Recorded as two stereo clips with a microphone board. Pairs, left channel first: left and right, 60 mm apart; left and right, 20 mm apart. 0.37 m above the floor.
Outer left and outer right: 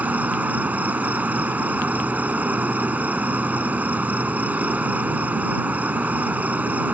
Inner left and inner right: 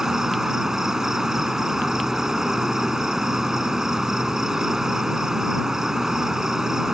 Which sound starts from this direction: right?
An insect, at 0.0 s.